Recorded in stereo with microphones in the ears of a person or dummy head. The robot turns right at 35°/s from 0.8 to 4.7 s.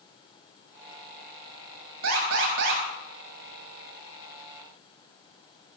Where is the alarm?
85° right, 6 m; by 2.8 s 65° right (ahead or behind), 6 m.